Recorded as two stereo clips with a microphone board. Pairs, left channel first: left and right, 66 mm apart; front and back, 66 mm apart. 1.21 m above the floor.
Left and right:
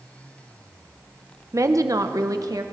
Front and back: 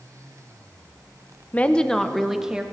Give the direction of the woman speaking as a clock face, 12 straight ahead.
2 o'clock.